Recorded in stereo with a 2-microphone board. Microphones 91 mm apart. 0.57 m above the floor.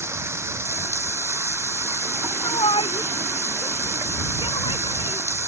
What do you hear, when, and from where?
0.0 s running water: 30° right (ahead or behind)
2.4 s a shout: 80° left